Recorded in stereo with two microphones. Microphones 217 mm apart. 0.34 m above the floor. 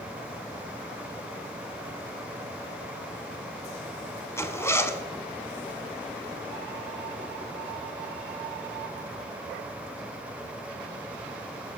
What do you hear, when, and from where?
4.4 s a zipper: 15° left (ahead or behind), 0.7 m